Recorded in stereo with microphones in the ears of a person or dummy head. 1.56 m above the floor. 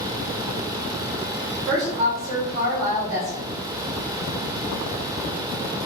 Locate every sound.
1.7 s a woman speaking: 50° right (ahead or behind), 0.9 m